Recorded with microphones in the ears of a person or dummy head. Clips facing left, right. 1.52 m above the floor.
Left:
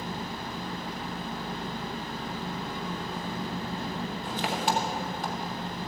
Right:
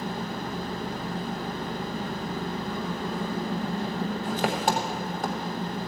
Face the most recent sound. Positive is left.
turn(degrees=-45)  # may be behind; listen again after turning